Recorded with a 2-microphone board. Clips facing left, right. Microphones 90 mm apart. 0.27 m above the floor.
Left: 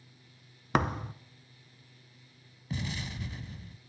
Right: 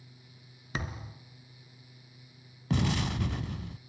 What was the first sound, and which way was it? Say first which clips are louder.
A thud: left 10 dB; 65° left (ahead or behind).